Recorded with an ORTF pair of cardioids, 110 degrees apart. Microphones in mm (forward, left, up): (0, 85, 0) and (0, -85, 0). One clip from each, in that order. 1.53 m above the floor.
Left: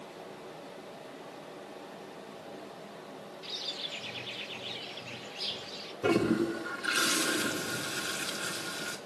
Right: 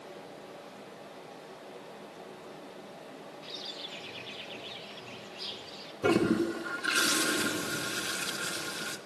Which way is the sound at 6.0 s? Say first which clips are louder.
Right 1 dB; 15° right.